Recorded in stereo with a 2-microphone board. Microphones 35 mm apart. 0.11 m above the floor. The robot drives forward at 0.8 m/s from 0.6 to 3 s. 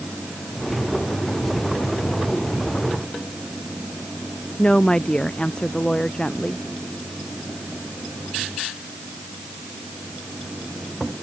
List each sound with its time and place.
4.6 s a woman speaking: 25° left (ahead or behind)